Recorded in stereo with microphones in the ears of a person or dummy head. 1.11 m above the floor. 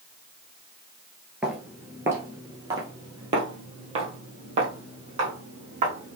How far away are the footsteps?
About 1.1 m.